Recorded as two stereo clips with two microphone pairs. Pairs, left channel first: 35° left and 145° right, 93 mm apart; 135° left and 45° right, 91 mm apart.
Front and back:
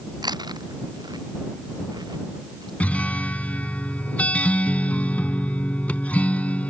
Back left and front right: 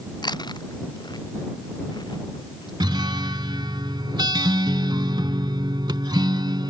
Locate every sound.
0.2 s chewing: 175° left
2.8 s a guitar: 40° right